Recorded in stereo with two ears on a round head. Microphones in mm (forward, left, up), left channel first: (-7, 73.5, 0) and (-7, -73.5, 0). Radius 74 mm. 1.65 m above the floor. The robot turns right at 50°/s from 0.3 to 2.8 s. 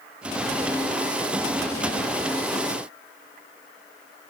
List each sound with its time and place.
Only background noise.